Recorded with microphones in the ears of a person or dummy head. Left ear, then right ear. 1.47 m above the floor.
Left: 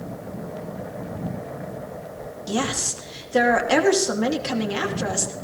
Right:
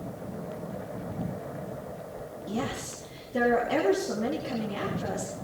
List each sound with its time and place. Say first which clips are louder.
2.5 s a woman speaking: left 9 dB; 55° left (ahead or behind), 2.5 m